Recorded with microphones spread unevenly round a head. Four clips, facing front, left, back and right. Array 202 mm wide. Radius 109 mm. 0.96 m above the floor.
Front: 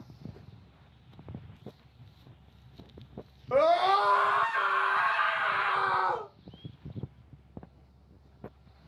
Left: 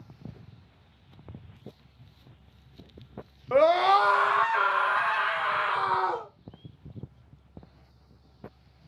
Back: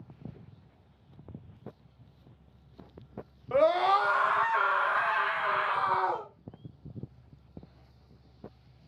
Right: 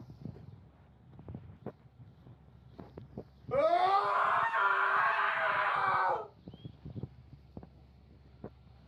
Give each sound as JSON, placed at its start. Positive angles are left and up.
{"t": 3.5, "sound": "a scream", "azimuth_deg": 70, "distance_m": 1.1}